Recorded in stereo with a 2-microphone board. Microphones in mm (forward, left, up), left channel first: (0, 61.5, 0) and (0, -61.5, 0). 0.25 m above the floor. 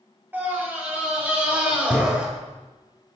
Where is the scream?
15° right (ahead or behind), 5 m; by 2.3 s 10° right (ahead or behind), 4 m.